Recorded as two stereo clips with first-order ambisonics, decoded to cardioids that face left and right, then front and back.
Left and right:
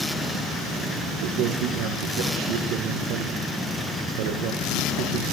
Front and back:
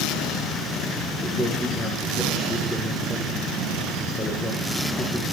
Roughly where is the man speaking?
Right.